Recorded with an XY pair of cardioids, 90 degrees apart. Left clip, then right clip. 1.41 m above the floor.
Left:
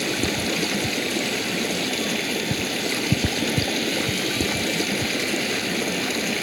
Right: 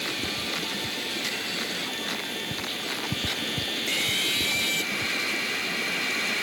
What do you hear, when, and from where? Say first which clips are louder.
0.0 s running water: left 5 dB; 70° left